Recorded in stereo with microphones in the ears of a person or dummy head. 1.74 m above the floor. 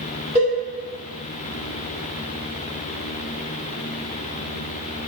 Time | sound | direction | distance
0.3 | a cowbell | 25° right (ahead or behind) | 1.6 m